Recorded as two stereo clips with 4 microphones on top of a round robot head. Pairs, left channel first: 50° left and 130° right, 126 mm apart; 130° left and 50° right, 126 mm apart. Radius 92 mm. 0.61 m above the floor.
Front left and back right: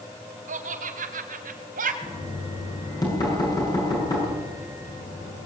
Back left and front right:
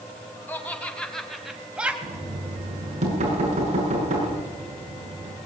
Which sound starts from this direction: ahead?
Knocking, at 2.0 s.